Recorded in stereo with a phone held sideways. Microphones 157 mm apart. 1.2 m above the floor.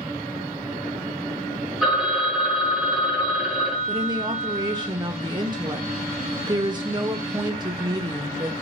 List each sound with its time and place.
1.8 s a phone ringing: 5° right (ahead or behind), 1.0 m
3.9 s a woman speaking: 30° right (ahead or behind), 0.6 m